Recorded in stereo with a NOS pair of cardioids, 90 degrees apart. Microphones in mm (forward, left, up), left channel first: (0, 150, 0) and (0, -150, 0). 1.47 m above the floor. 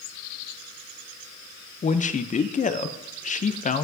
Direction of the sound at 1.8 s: 25° left.